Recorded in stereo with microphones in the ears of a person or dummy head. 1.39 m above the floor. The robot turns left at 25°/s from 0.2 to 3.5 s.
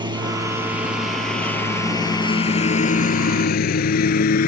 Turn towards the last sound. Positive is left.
turn(degrees=55)  # may be behind; listen again after turning